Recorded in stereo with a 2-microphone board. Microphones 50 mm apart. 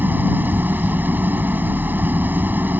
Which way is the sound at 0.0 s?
40° right (ahead or behind).